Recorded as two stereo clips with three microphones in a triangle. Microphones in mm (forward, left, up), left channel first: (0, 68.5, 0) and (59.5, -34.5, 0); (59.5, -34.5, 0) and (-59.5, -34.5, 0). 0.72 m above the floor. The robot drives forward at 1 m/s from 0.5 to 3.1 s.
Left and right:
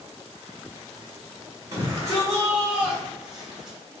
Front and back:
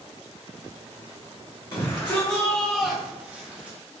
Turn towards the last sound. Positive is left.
turn(degrees=-135)